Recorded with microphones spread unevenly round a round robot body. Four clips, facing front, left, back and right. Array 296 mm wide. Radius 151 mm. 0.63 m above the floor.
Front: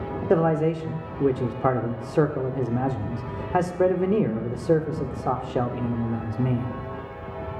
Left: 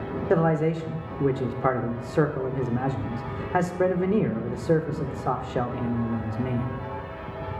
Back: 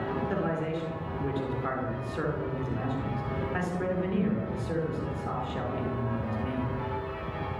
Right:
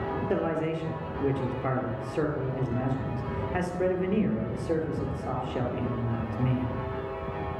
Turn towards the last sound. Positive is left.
turn(degrees=25)